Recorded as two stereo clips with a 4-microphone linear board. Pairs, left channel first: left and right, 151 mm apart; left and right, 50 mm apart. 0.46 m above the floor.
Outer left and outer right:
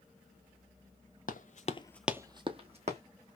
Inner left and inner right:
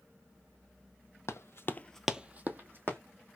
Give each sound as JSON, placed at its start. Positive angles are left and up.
{"t": 1.3, "sound": "running footsteps", "side_deg": 65, "distance_m": 1.0}